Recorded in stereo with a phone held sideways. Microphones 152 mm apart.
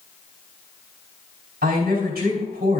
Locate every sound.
1.6 s a woman speaking: 85° right, 4 m